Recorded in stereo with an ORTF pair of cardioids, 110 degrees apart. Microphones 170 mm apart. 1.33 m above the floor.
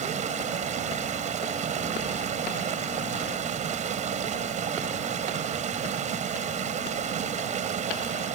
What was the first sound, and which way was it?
Running water, 50° right.